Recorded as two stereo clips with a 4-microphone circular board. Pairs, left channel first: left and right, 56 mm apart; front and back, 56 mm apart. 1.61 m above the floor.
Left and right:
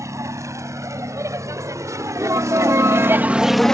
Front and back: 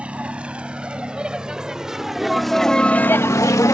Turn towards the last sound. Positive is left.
turn(degrees=10)